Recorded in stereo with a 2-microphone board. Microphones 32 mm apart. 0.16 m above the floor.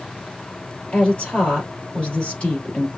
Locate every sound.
0.9 s a woman speaking: 45° left (ahead or behind), 3 m